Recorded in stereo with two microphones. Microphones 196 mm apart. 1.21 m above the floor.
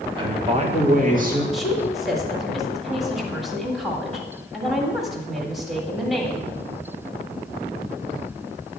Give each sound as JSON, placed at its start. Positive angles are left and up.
{"t": 0.2, "sound": "a man speaking", "side_deg": -25, "distance_m": 1.3}
{"t": 1.5, "sound": "a woman speaking", "side_deg": 0, "distance_m": 1.8}